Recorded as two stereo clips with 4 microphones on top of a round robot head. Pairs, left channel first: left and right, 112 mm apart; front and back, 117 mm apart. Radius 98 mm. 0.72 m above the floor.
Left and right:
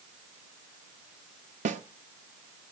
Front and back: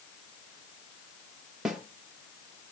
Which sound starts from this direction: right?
A snare drum, at 1.6 s.